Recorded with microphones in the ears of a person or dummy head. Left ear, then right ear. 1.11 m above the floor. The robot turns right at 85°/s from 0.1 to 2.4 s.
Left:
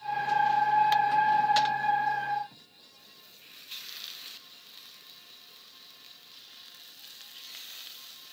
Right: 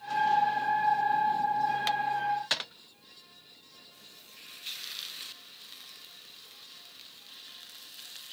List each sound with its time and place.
Only background noise.